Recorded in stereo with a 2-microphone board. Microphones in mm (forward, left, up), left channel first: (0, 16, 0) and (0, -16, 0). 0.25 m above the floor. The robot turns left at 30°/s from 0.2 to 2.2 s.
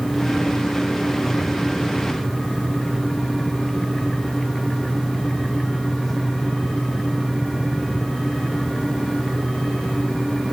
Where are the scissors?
No scissors in this recording.